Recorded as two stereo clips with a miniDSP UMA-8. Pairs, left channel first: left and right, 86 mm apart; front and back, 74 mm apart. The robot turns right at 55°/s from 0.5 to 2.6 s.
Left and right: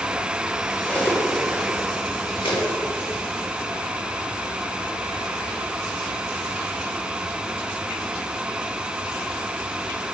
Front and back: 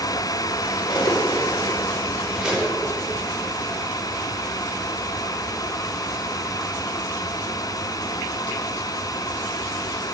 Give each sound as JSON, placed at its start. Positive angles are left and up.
{"t": 0.9, "sound": "cutlery clinking", "azimuth_deg": 15, "distance_m": 1.1}